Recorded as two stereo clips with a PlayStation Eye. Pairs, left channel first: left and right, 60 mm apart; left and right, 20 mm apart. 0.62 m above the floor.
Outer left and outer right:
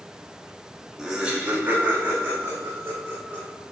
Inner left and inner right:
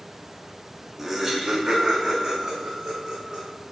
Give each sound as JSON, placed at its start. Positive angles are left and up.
{"t": 1.0, "sound": "laughter", "side_deg": -10, "distance_m": 1.0}